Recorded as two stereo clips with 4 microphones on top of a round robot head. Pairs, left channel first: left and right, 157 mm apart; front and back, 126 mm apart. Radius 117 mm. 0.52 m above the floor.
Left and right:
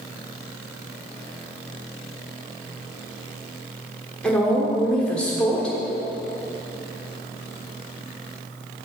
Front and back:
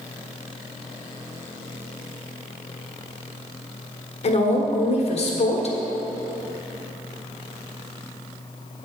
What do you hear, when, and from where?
4.2 s a woman speaking: 5° left, 1.4 m